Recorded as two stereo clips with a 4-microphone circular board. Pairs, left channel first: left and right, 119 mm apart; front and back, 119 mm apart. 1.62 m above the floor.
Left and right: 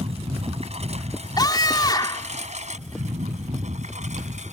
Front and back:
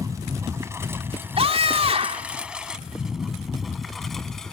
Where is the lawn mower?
120° right; by 4.5 s 85° right.